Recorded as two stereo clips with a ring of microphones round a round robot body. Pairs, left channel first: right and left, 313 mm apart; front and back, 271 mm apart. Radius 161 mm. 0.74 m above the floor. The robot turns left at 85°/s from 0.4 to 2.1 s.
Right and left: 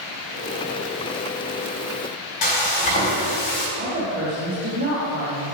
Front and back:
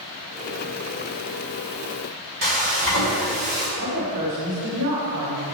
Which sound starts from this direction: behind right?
Frying, at 2.4 s.